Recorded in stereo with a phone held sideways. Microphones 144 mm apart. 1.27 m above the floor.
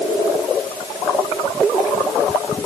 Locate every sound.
Only background noise.